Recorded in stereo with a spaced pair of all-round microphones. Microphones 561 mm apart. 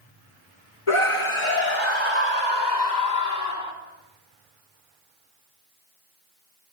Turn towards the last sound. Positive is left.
turn(degrees=40)  # may be behind; listen again after turning